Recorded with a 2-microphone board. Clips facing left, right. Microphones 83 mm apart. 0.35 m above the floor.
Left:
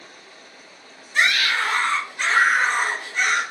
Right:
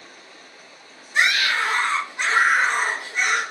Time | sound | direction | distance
1.1 | a scream | 20° right (ahead or behind) | 1.5 m